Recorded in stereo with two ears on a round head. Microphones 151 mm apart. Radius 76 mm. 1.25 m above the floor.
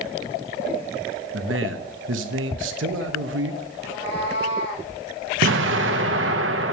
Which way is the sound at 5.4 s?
85° right.